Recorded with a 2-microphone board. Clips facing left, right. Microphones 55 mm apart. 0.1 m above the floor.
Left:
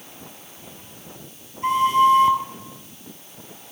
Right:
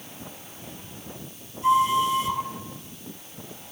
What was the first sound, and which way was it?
A flute, 50° left (ahead or behind).